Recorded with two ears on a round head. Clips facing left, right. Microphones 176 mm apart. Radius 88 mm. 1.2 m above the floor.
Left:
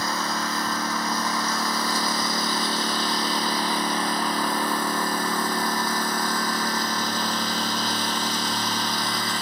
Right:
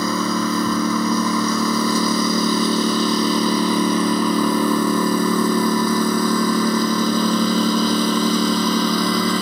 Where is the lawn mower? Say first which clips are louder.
Right 8 dB; 80° right; by 9.4 s 70° right (ahead or behind).